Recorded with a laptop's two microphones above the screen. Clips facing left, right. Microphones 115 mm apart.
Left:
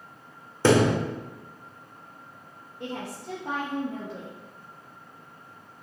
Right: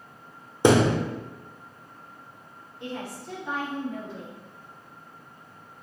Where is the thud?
15° right (ahead or behind), 0.7 m.